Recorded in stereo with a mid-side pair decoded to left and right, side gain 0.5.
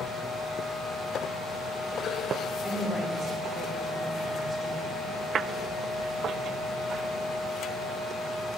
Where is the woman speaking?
30° left, 4 m.